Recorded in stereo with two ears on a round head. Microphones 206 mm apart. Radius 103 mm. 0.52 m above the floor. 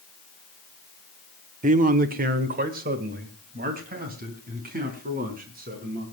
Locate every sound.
1.6 s a man speaking: 35° right (ahead or behind), 1.0 m; by 6.0 s 40° right (ahead or behind), 5.5 m